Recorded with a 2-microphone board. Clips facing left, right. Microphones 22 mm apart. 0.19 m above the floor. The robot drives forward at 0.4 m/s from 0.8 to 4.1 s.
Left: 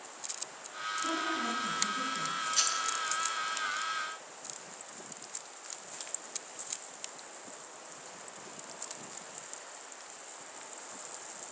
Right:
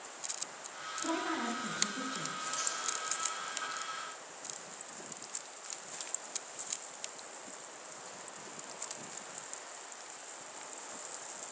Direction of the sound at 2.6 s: 70° left (ahead or behind).